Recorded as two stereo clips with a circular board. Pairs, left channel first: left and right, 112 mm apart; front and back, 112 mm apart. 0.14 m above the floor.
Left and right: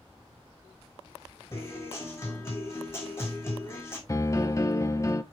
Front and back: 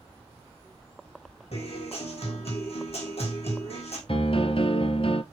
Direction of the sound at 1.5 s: 20° left.